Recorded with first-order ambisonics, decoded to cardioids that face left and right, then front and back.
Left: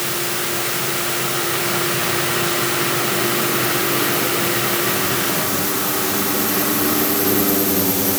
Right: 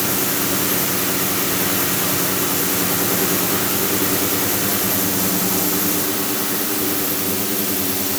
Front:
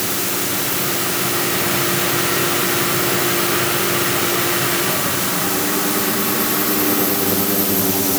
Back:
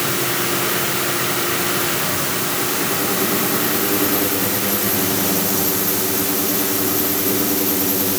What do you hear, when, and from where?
Only background noise.